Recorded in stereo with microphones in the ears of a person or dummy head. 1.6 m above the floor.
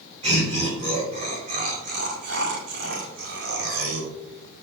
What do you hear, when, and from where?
0.2 s laughter: 30° right (ahead or behind), 2.5 m; by 4.1 s 75° right (ahead or behind), 2.5 m